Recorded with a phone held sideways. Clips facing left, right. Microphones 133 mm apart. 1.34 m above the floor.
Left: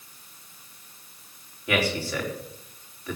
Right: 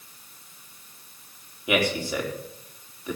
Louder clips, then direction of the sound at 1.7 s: Right 1 dB; 15° right (ahead or behind).